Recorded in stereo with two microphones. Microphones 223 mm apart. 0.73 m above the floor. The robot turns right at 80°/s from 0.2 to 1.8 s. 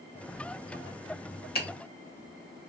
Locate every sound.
1.6 s a finger snap: 45° left (ahead or behind), 0.8 m; by 1.7 s 55° left (ahead or behind), 0.8 m